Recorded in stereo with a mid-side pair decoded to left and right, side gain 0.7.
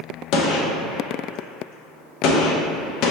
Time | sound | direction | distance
0.3 | a gunshot | 60° left | 0.7 m